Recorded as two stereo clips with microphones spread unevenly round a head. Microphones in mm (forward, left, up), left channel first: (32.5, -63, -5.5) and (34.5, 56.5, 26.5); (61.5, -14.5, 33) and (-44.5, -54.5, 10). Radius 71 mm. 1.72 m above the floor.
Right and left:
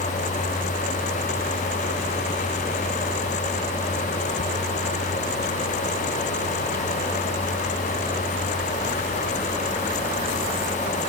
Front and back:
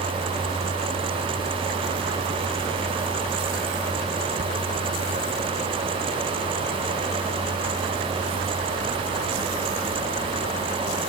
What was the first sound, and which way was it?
Only background noise.